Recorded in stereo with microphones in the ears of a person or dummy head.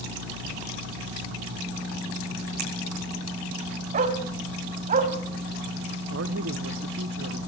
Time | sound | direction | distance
2.6 | a finger snap | 45° right (ahead or behind) | 5.5 m
3.9 | a dog barking | 45° right (ahead or behind) | 3 m
6.1 | a man speaking | 75° right (ahead or behind) | 1.5 m